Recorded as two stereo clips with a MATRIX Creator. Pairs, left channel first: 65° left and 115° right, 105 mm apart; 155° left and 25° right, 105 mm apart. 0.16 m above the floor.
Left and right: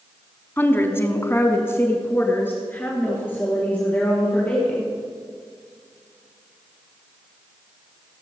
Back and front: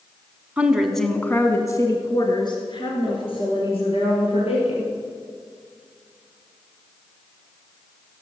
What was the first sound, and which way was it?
A woman speaking, 35° left.